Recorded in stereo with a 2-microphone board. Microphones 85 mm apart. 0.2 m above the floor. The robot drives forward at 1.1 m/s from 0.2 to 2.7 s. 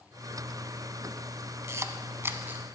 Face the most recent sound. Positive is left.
turn(degrees=-20)  # may be behind; listen again after turning